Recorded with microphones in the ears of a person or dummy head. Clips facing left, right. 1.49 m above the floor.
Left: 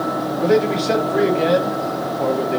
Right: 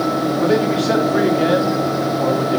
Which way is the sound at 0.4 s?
5° right (ahead or behind).